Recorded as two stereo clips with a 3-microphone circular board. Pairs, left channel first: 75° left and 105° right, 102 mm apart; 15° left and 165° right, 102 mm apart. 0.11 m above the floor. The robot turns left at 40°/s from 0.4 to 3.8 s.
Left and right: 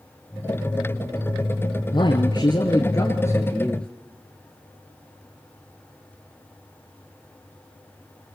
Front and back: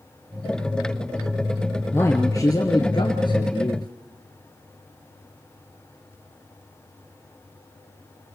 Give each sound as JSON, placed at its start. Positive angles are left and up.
{"t": 1.9, "sound": "a man speaking", "azimuth_deg": 75, "distance_m": 1.6}